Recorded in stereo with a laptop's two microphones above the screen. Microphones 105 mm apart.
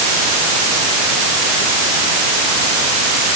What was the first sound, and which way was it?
Only background noise.